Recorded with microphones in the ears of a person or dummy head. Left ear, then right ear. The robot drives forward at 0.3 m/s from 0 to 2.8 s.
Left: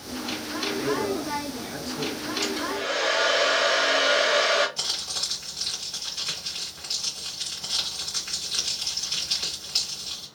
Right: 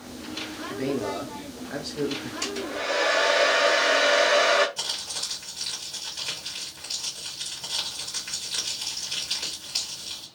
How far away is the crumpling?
About 2.5 m.